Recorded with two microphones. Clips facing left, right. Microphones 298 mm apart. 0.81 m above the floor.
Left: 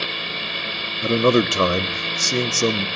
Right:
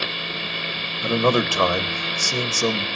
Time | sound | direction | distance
1.0 | a man speaking | 25° left (ahead or behind) | 0.6 m